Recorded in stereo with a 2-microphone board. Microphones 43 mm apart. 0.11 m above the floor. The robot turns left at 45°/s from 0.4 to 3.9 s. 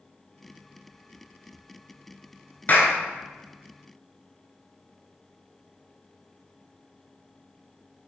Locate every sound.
2.7 s a clap: 40° left (ahead or behind), 1.3 m; by 3.0 s 35° left (ahead or behind), 1.3 m